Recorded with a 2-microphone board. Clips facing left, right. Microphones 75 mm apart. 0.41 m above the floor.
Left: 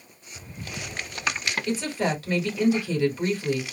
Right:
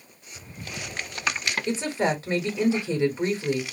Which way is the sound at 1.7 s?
30° right (ahead or behind).